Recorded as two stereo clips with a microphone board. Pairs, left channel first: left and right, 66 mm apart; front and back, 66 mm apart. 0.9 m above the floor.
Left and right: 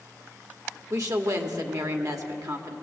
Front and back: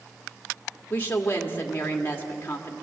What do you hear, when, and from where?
0.9 s a woman speaking: 60° right, 2 m